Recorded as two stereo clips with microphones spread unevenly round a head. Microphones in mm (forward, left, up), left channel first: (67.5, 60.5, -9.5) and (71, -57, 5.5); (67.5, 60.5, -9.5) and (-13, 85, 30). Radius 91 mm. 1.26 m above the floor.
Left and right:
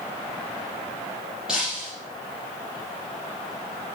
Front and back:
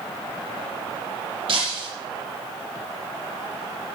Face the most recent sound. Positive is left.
turn(degrees=-175)